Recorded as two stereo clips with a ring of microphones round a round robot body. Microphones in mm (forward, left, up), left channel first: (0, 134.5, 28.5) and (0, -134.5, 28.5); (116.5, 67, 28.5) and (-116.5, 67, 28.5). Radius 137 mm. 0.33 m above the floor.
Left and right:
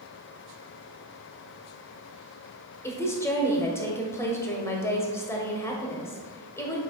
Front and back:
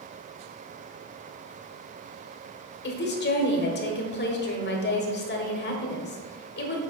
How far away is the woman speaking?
About 1.2 m.